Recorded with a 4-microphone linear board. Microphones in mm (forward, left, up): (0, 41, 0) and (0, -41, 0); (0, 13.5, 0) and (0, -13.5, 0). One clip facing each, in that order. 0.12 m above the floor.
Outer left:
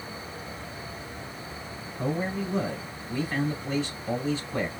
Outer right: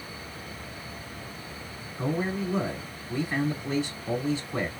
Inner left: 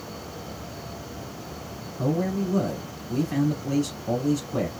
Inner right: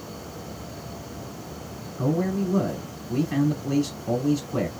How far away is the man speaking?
About 1.8 m.